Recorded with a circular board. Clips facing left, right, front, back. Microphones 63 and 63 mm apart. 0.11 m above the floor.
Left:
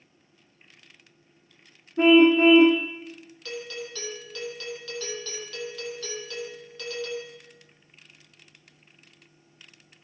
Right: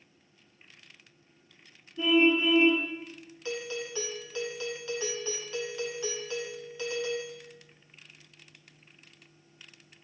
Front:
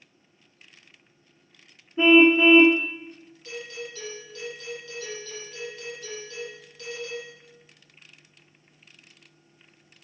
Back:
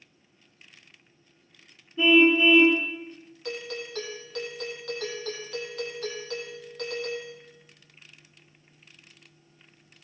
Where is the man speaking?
I don't hear a man speaking.